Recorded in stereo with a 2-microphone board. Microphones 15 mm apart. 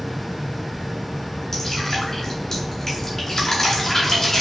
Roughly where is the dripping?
Left.